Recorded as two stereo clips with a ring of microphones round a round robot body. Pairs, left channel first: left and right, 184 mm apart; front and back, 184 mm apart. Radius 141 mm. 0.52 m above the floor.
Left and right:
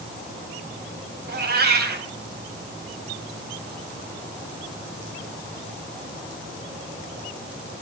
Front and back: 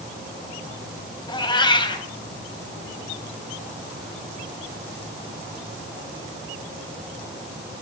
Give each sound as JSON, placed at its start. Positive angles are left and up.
{"t": 1.3, "sound": "a cat meowing", "azimuth_deg": -65, "distance_m": 2.0}